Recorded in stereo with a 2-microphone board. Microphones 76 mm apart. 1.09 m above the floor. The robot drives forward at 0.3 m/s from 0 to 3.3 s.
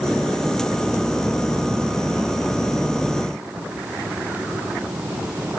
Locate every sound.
Only background noise.